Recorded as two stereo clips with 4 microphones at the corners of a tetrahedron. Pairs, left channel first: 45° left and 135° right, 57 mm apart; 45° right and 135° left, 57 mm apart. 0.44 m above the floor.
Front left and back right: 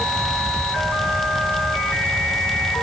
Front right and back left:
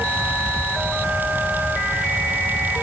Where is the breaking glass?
No breaking glass in this recording.